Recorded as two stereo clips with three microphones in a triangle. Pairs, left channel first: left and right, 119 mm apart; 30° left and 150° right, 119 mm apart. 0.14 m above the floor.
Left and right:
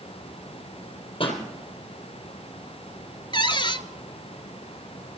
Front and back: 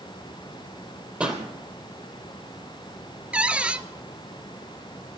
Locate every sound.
1.2 s a pop: 135° left, 4 m
3.3 s a cupboard door: 135° left, 0.8 m